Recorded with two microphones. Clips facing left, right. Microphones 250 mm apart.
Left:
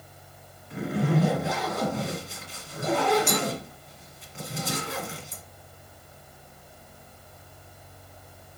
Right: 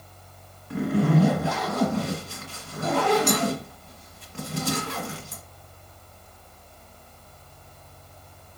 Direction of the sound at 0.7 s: 70° right (ahead or behind).